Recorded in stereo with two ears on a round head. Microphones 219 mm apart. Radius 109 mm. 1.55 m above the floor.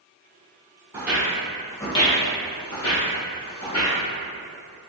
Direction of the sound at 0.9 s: 10° right (ahead or behind).